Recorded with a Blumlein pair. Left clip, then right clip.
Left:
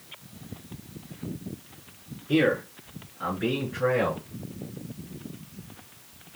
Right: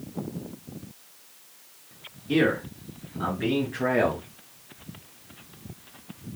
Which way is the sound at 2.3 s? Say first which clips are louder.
Even; 70° right.